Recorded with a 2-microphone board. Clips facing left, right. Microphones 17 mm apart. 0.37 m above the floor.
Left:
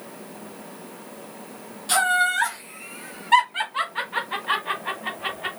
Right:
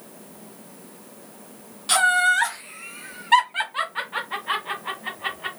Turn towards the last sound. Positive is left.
turn(degrees=20)  # may be behind; listen again after turning